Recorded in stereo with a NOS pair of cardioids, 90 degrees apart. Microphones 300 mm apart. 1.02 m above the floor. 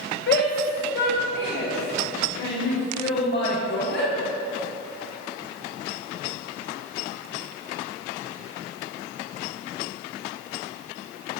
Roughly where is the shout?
Ahead left.